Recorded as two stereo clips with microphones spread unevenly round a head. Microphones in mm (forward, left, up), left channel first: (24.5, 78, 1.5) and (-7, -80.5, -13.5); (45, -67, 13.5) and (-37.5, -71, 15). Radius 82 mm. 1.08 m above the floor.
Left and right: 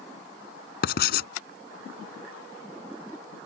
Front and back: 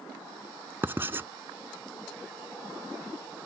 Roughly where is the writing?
Left.